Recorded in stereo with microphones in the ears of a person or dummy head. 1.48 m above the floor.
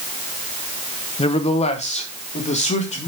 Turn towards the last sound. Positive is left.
turn(degrees=35)  # may be behind; listen again after turning